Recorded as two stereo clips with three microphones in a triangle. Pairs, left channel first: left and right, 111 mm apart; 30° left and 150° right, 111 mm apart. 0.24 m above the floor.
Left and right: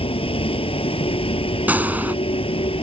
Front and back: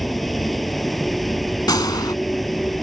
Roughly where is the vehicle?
Behind left.